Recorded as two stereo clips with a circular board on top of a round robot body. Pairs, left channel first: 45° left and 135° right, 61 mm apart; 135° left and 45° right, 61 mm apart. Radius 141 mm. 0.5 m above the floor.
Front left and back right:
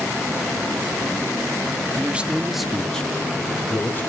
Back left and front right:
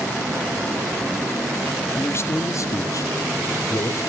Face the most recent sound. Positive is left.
turn(degrees=105)